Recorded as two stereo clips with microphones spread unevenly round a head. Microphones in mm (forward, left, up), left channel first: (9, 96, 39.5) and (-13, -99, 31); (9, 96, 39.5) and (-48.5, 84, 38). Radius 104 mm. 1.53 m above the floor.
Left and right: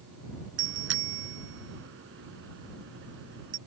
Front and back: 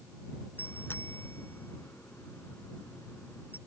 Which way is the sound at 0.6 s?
65° right.